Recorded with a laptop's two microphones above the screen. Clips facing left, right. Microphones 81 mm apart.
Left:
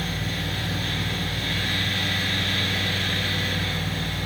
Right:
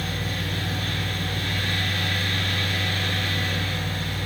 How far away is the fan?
About 1.3 m.